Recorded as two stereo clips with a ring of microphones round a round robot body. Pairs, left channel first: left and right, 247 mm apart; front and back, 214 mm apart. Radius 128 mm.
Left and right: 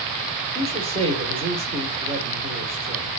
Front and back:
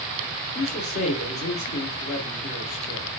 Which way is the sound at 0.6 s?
30° right.